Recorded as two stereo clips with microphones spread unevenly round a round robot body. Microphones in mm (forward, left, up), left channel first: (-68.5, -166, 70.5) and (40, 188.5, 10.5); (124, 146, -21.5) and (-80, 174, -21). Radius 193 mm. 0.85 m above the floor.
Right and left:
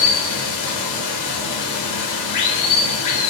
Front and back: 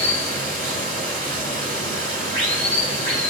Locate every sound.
0.0 s running water: 70° right, 0.7 m